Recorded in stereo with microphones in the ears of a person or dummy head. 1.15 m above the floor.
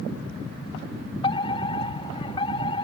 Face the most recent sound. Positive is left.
turn(degrees=20)  # may be behind; listen again after turning